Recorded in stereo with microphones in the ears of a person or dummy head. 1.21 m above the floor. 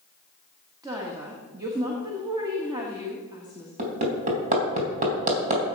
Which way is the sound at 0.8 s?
20° right (ahead or behind).